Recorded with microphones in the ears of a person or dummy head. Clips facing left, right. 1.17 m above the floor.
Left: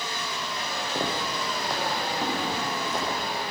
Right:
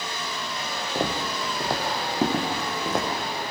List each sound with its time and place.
0.9 s footsteps: 10° right (ahead or behind), 2.5 m; by 3.1 s 50° right (ahead or behind), 4.5 m